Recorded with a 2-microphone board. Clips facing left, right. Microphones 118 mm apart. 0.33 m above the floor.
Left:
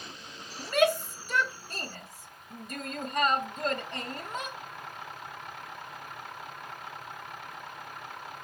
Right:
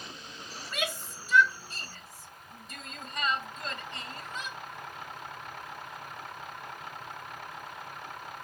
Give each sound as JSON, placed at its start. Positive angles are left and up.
{"t": 0.6, "sound": "a shout", "side_deg": 50}